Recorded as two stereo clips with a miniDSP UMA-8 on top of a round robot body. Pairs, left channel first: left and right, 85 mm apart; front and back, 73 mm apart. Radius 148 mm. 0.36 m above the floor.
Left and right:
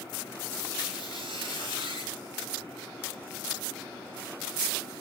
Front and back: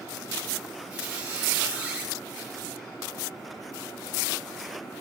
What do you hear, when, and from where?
0.9 s a squeak: 105° right, 5 m